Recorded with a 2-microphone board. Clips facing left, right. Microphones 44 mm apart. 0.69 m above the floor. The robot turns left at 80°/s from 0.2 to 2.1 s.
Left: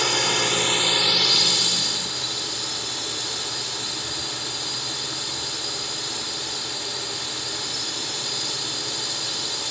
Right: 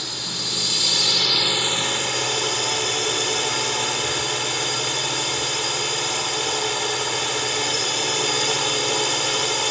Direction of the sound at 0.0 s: 85° left.